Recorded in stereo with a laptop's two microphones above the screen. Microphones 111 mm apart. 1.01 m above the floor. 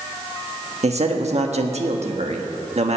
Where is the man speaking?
75° right (ahead or behind), 1.5 m.